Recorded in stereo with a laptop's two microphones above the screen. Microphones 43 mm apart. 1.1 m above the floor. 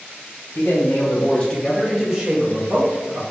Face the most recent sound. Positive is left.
turn(degrees=-65)  # may be behind; listen again after turning